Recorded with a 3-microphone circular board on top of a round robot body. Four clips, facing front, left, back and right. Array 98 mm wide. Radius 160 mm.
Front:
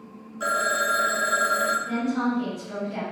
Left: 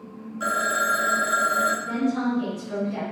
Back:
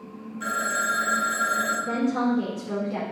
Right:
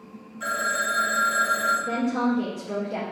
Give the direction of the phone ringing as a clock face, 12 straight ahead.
11 o'clock.